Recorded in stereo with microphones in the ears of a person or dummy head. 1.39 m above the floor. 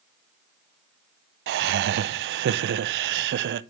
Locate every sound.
1.5 s laughter: 65° right (ahead or behind), 0.5 m